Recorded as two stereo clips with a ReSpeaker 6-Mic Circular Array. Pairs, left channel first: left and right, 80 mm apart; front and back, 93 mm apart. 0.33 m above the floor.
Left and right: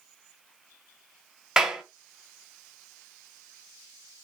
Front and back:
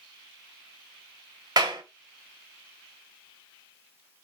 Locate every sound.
1.6 s a clap: 165° right, 1.1 m